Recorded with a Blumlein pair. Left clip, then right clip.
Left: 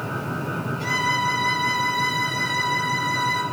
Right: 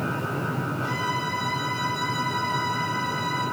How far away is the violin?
About 2.5 m.